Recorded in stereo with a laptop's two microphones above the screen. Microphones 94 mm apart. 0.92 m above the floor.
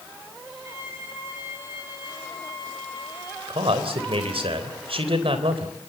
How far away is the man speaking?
About 3.5 m.